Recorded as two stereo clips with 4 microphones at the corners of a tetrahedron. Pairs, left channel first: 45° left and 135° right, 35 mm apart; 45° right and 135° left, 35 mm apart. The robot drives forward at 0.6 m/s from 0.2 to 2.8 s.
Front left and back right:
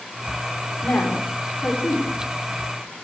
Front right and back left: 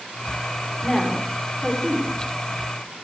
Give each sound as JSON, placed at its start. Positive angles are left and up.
{"t": 0.8, "sound": "a woman speaking", "azimuth_deg": 35, "distance_m": 3.0}